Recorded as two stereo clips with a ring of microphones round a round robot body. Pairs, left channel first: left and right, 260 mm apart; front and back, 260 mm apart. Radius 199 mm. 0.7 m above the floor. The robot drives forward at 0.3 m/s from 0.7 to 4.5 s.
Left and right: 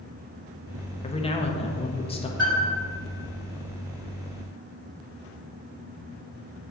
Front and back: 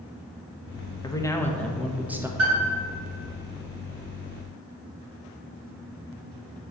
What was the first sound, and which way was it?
A man speaking, 55° left.